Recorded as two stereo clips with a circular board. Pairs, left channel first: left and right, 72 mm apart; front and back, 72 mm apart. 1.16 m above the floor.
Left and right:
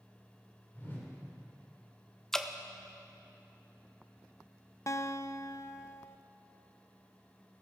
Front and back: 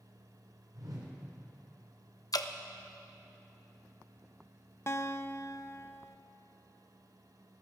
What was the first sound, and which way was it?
A whoosh, 150° left.